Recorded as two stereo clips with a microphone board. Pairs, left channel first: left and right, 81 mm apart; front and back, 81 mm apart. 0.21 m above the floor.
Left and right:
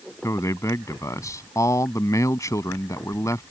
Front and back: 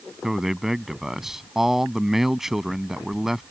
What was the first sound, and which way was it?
A man speaking, 95° left.